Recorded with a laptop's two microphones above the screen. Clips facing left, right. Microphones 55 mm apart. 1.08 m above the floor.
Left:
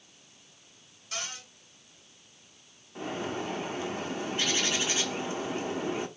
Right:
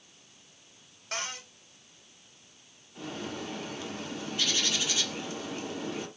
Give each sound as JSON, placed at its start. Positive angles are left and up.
{"t": 1.1, "sound": "a cupboard door", "side_deg": -50, "distance_m": 2.0}
{"t": 3.0, "sound": "a bird", "side_deg": 30, "distance_m": 1.1}